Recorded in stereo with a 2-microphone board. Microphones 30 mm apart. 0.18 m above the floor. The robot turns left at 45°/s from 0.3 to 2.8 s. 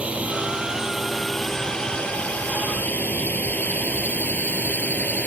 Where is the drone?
45° right (ahead or behind); by 5.3 s 65° left (ahead or behind).